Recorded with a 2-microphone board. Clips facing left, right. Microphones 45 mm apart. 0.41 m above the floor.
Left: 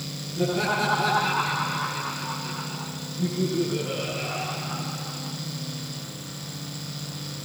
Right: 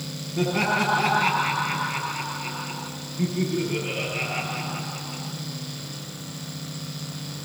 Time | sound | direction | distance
0.4 | laughter | 70° right (ahead or behind) | 9.5 m